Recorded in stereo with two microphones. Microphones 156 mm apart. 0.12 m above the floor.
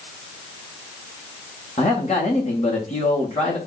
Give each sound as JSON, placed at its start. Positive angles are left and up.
{"t": 1.8, "sound": "a man speaking", "side_deg": 45, "distance_m": 6.0}